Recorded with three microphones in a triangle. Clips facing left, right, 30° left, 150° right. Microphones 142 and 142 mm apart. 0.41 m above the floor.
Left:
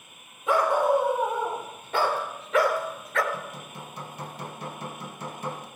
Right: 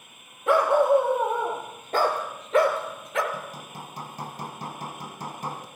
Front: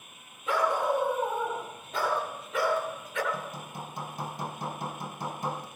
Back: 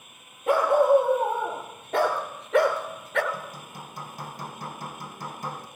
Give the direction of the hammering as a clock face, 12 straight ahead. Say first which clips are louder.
Even, front 1 dB; 1 o'clock.